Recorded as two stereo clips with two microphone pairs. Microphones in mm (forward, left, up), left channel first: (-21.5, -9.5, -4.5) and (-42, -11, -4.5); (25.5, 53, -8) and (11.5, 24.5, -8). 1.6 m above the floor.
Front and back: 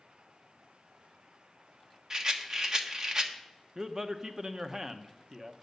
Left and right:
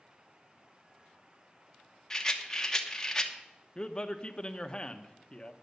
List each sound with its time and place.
2.1 s a rattle: 130° left, 1.1 m
3.8 s a man speaking: 120° left, 1.0 m